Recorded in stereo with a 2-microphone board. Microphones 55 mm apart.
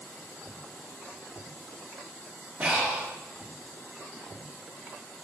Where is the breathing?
25° right (ahead or behind), 0.8 m.